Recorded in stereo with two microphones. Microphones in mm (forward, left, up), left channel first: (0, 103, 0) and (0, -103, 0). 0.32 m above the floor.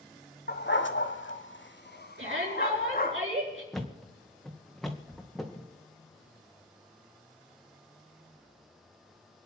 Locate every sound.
0.5 s a dog barking: 55° left (ahead or behind), 0.9 m; by 3.2 s 45° left (ahead or behind), 1.9 m
2.2 s a shout: 75° right (ahead or behind), 5 m
3.7 s a thud: centre (ahead or behind), 1.8 m